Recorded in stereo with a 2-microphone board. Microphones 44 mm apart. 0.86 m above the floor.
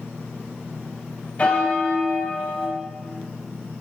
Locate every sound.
1.4 s a bell: 30° left (ahead or behind), 3.5 m